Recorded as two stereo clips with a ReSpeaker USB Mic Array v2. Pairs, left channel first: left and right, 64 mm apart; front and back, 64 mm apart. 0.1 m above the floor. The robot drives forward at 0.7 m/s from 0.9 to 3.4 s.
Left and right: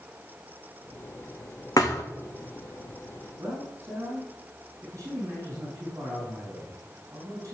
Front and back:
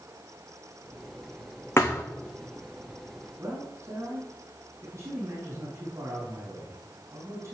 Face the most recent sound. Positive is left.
turn(degrees=-135)